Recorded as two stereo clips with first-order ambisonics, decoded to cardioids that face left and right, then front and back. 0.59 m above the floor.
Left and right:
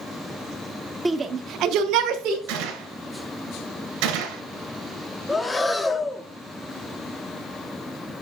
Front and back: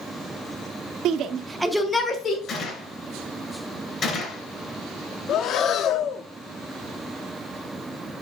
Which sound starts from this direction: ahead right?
A gunshot, at 2.5 s.